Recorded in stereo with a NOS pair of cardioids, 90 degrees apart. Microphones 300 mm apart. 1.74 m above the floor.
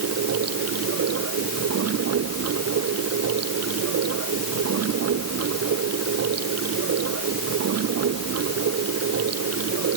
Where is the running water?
55° right.